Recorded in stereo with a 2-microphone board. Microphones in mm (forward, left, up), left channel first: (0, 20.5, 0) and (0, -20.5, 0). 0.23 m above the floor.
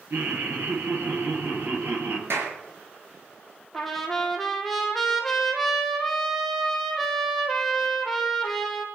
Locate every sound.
0.1 s laughter: 55° right (ahead or behind), 5 m
2.3 s a clap: 70° right (ahead or behind), 4 m
3.7 s a trumpet: 5° left (ahead or behind), 2.5 m